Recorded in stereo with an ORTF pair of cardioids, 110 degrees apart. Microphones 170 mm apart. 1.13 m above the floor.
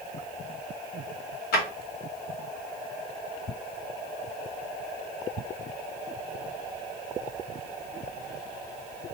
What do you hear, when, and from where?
1.5 s a drawer: 65° left, 1.3 m